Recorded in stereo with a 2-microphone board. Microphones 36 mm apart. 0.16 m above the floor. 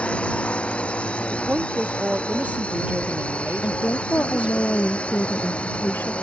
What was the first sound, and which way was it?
A drone, 35° left (ahead or behind).